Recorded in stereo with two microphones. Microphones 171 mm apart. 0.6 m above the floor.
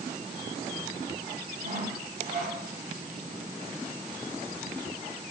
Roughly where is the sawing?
Right.